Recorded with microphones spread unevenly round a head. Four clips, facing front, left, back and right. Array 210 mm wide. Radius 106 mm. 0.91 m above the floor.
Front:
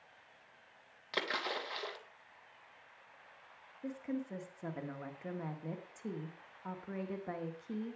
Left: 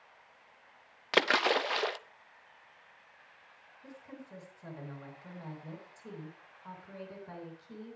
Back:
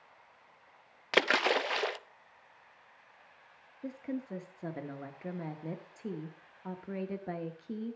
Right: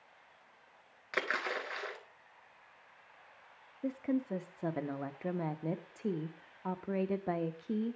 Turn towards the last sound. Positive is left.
turn(degrees=-110)